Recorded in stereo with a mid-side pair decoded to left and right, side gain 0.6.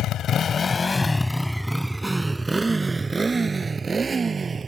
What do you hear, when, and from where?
0.0 s a motorcycle: 60° left; by 4.7 s 30° right